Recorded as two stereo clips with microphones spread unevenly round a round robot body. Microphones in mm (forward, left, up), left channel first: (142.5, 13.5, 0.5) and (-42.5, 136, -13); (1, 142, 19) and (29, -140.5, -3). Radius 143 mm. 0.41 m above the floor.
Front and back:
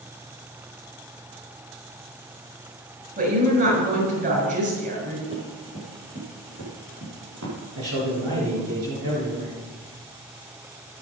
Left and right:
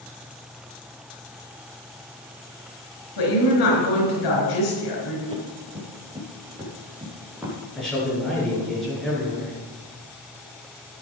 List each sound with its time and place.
3.2 s a woman speaking: 105° left, 6 m
5.3 s running footsteps: 155° right, 6.5 m; by 7.6 s 170° right, 6 m
7.8 s a man speaking: 175° right, 6 m